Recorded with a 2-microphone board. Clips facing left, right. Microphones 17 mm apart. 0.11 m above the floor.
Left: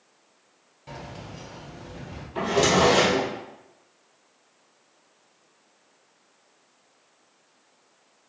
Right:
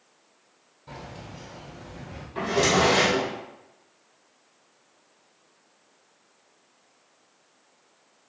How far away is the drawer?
About 2 m.